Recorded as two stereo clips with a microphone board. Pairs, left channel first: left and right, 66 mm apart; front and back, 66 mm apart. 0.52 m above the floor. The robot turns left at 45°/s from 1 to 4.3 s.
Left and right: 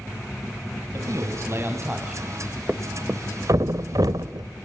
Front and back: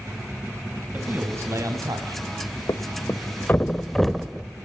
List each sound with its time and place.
0.9 s a man speaking: 115° right, 3.5 m; by 2.2 s 170° right, 3.5 m
2.7 s a thud: 25° right, 0.8 m; by 4.5 s 95° right, 0.8 m